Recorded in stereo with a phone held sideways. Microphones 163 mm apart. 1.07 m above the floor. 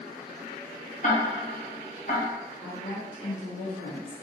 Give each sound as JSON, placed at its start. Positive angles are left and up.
{"t": 1.0, "sound": "ticking", "side_deg": 50, "distance_m": 0.8}
{"t": 2.6, "sound": "a woman speaking", "side_deg": 65, "distance_m": 1.0}